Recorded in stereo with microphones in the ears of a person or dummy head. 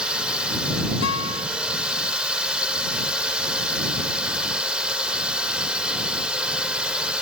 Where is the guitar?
80° left.